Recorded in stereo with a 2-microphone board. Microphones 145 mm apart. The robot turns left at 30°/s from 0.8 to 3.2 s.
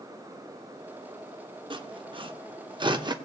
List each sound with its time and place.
1.7 s sawing: 35° right (ahead or behind), 0.7 m; by 3.1 s 30° right (ahead or behind), 0.7 m